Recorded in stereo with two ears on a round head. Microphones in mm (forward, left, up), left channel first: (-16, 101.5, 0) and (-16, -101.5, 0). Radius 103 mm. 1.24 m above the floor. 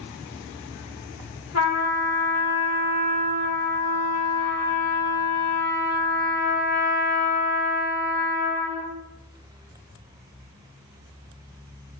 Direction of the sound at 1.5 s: 75° left (ahead or behind).